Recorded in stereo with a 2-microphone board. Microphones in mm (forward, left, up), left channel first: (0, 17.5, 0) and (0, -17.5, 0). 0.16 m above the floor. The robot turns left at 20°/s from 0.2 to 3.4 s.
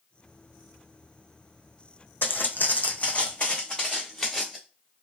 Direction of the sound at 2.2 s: 80° left.